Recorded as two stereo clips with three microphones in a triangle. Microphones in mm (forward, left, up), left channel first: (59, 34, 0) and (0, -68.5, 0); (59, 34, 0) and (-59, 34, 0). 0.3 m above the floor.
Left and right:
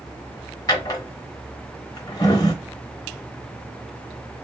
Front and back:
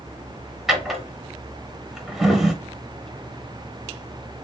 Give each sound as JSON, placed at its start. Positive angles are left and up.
{"t": 0.7, "sound": "a drawer", "azimuth_deg": 95, "distance_m": 0.8}